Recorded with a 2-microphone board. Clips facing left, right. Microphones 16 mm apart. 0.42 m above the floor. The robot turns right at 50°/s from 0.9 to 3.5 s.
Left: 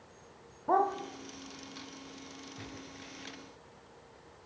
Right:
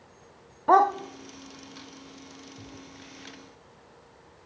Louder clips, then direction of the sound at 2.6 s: Right 1 dB; 75° left (ahead or behind).